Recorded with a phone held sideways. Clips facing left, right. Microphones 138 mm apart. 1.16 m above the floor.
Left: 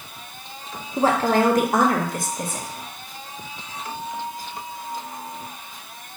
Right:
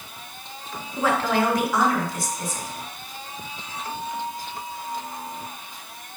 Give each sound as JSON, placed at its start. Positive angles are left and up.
{"t": 1.0, "sound": "a woman speaking", "side_deg": 40, "distance_m": 1.4}